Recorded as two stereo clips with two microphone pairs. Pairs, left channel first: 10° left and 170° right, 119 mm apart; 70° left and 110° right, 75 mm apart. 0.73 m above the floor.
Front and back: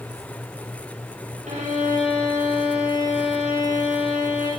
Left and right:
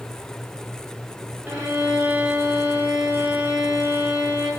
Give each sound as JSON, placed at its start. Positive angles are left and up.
{"t": 1.5, "sound": "a violin", "azimuth_deg": -175, "distance_m": 9.5}